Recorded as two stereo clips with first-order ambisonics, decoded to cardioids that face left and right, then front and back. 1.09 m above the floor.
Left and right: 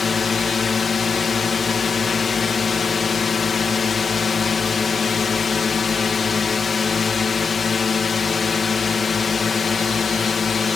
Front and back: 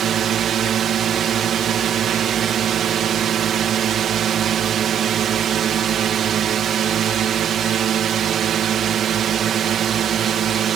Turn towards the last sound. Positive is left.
turn(degrees=150)